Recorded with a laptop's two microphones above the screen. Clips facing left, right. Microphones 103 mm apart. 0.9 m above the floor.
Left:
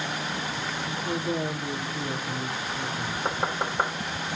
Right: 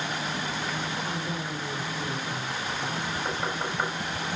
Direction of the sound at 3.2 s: 45° left (ahead or behind).